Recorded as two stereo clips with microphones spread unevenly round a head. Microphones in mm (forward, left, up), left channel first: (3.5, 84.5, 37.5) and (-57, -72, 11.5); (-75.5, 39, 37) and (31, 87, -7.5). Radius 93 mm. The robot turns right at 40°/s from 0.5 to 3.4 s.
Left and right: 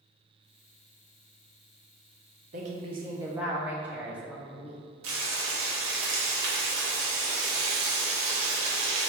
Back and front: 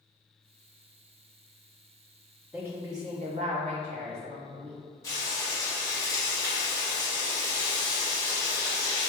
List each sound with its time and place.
2.5 s a woman speaking: 60° right, 0.7 m; by 4.8 s 30° right, 0.7 m
5.0 s frying: 90° right, 1.0 m